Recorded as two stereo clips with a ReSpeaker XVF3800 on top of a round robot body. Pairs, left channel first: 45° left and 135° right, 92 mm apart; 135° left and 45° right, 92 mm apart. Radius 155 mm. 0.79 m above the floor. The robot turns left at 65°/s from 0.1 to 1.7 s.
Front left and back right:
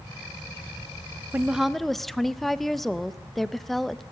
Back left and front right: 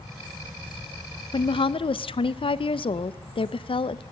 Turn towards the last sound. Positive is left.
turn(degrees=135)